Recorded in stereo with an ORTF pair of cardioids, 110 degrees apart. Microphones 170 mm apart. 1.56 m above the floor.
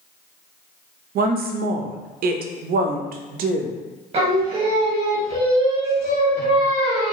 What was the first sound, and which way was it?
A woman speaking, 60° right.